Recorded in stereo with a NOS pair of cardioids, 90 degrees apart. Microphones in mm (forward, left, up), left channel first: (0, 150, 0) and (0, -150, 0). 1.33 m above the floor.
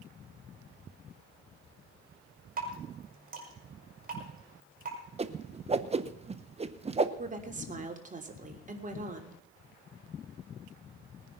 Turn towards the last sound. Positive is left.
turn(degrees=-25)